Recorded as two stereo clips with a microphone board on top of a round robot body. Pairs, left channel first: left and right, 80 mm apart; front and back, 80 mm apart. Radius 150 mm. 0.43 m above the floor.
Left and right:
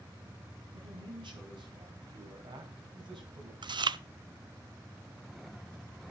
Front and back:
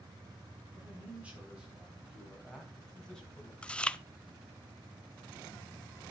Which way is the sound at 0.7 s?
110° right.